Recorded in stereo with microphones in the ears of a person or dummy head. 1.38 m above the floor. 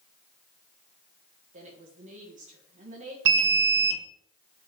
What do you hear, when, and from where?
1.5 s a woman speaking: 35° right (ahead or behind), 1.5 m
3.2 s an alarm: 70° right (ahead or behind), 0.7 m